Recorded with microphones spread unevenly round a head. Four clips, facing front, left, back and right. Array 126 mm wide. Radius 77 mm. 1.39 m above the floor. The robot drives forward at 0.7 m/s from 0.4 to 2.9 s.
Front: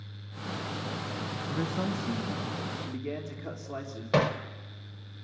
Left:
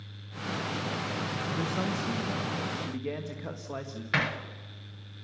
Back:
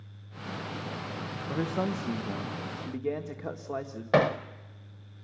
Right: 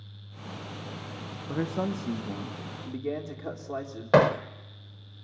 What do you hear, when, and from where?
1.5 s a man speaking: 155° right, 1.6 m; by 4.0 s 165° right, 2.5 m
4.1 s hammering: 110° right, 0.6 m